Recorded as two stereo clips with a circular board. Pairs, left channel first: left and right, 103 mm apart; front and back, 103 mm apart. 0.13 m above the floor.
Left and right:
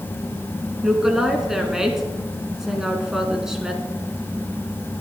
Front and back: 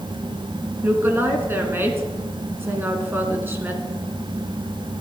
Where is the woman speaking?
165° right, 1.3 m.